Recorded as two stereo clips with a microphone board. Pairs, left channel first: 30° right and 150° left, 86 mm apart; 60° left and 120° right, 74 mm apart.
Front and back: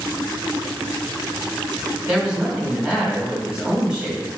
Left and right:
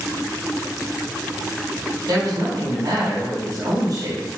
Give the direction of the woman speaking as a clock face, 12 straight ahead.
4 o'clock.